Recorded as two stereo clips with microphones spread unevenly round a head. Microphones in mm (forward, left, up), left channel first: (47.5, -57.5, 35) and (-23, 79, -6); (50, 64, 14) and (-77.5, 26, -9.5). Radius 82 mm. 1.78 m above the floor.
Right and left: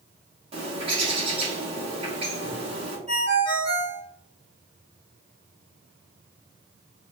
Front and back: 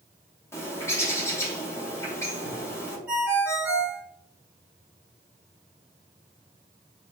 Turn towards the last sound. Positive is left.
turn(degrees=105)